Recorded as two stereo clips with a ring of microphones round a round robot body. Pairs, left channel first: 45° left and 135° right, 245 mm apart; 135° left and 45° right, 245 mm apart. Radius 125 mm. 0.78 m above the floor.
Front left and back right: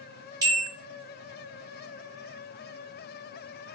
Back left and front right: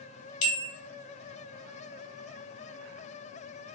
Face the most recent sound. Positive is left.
turn(degrees=150)